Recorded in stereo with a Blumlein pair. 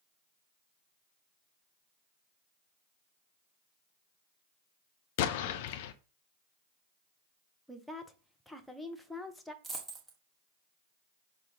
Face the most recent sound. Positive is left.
turn(degrees=-5)